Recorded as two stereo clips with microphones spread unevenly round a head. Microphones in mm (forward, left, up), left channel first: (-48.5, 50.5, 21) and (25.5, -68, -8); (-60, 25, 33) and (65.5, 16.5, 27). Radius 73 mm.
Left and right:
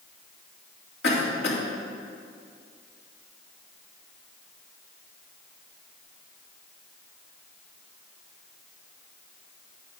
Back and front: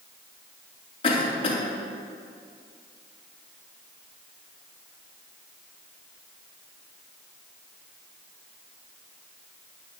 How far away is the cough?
About 3.5 m.